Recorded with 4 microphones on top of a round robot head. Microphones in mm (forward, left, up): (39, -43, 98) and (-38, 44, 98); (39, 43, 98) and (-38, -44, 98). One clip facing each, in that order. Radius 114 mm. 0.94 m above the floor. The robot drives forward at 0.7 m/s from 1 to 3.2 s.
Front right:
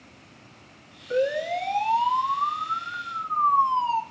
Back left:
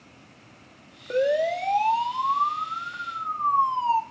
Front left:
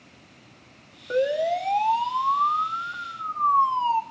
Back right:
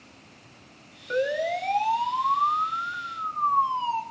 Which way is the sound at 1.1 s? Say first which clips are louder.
Back left 2 dB, front left 3 dB; 115° left.